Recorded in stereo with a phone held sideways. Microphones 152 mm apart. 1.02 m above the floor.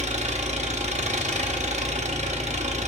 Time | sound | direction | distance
0.0 | an engine running | 50° right (ahead or behind) | 0.7 m